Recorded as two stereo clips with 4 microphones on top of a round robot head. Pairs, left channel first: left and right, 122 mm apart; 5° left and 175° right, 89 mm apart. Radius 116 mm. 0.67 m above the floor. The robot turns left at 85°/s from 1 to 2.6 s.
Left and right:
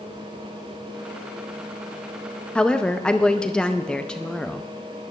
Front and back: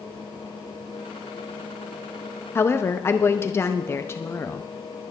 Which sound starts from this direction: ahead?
A woman speaking, at 2.5 s.